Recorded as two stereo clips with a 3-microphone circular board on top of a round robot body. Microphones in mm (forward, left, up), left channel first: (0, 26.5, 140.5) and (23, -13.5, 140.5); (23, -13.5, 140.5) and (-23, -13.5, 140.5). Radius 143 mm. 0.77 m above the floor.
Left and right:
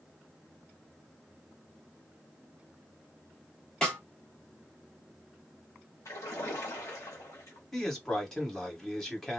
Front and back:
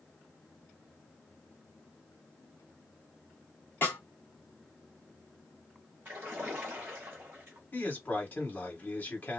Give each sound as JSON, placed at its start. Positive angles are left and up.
{"t": 3.8, "sound": "a snare drum", "azimuth_deg": 45, "distance_m": 1.4}
{"t": 6.0, "sound": "a splash", "azimuth_deg": 130, "distance_m": 0.6}
{"t": 7.7, "sound": "a man speaking", "azimuth_deg": 40, "distance_m": 1.7}